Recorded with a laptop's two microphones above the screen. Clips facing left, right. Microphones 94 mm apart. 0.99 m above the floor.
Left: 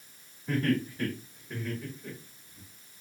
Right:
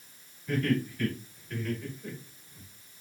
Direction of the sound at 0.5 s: 50° left (ahead or behind).